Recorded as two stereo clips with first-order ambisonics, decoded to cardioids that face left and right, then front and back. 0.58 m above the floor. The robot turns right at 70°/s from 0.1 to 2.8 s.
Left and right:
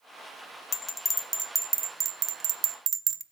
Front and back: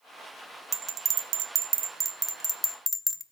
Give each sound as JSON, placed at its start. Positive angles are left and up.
{"t": 0.7, "sound": "a bell", "azimuth_deg": 140, "distance_m": 0.7}